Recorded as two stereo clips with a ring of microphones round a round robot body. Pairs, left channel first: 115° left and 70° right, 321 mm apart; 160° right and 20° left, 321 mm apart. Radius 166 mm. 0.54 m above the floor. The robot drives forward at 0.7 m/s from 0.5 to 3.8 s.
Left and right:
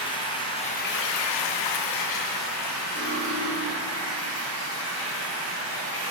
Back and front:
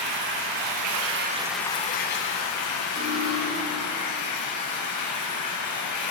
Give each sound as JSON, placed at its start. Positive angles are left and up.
{"t": 0.0, "sound": "running water", "azimuth_deg": 35, "distance_m": 0.7}
{"t": 3.0, "sound": "cutlery clinking", "azimuth_deg": -20, "distance_m": 2.5}